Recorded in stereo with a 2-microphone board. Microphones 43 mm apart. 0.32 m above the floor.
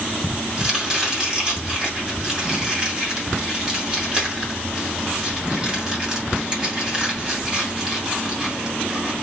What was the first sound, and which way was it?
Chopping, 20° right (ahead or behind).